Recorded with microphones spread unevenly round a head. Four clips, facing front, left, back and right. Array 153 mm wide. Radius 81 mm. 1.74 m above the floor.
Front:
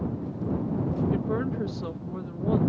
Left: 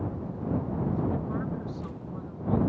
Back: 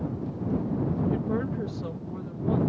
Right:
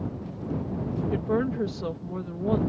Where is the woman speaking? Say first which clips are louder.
Right 6 dB, front 1 dB; 70° right.